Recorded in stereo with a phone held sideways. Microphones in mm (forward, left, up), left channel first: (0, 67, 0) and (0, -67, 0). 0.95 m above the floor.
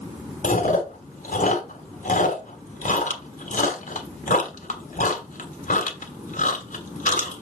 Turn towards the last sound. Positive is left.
turn(degrees=70)  # may be behind; listen again after turning